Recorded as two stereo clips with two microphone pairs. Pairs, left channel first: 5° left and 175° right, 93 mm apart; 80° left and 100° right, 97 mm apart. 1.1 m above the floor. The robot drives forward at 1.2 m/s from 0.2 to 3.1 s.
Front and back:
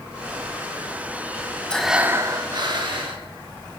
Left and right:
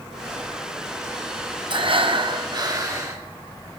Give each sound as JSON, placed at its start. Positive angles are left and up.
{"t": 1.7, "sound": "breathing", "azimuth_deg": -75, "distance_m": 0.8}